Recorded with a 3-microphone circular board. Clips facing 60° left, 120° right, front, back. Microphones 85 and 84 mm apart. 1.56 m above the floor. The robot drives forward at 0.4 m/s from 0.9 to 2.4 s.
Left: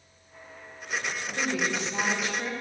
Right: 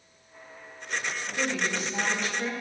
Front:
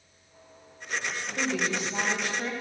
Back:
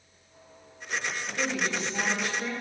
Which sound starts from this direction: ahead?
A woman speaking, at 1.4 s.